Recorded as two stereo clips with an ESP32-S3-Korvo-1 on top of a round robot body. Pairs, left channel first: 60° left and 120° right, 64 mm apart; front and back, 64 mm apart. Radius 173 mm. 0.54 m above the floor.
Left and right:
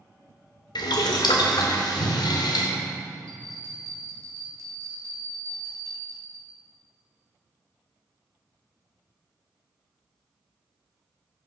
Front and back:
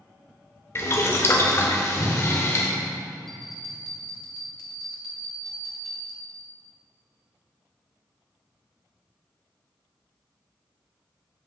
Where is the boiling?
55° left, 0.7 m.